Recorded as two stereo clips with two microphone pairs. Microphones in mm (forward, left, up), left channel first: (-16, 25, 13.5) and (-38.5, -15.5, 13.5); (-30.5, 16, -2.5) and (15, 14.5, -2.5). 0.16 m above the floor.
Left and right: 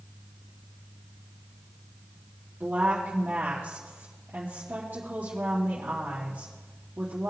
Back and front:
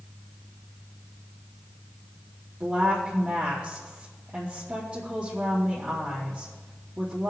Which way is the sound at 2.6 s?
65° right.